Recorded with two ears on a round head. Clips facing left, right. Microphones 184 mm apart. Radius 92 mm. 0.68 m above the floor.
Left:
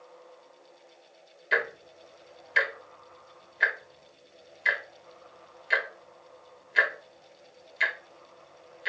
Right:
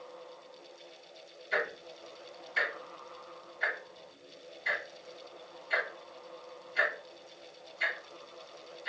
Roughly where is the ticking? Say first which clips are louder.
Left 3 dB; left.